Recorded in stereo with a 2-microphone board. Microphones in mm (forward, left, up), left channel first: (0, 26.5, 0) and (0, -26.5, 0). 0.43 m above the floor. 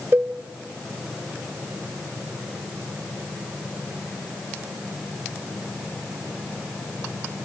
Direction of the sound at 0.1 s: 45° right (ahead or behind).